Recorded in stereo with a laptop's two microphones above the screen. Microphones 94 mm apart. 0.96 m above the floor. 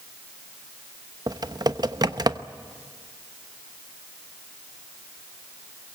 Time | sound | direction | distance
1.3 | typing on a keyboard | 45° right (ahead or behind) | 0.9 m